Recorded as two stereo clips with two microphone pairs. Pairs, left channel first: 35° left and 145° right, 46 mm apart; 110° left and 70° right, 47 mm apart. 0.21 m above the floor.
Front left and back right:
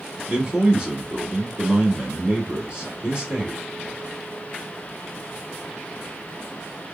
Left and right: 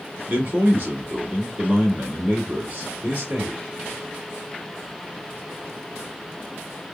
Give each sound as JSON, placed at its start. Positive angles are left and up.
{"t": 0.3, "sound": "a man speaking", "azimuth_deg": -85, "distance_m": 2.0}